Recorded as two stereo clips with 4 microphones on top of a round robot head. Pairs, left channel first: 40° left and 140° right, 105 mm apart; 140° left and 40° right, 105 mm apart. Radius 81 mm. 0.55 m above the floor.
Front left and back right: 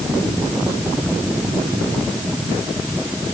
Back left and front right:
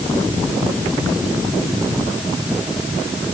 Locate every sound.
Only background noise.